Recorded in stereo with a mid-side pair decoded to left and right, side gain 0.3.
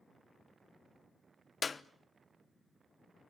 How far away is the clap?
About 1.0 m.